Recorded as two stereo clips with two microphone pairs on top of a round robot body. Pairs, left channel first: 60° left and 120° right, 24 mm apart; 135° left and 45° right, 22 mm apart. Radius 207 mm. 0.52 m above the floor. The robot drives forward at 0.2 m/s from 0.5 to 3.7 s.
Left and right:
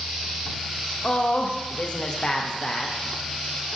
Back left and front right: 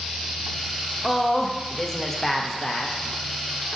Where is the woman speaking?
50° left, 0.8 m; by 3.0 s 100° left, 0.7 m.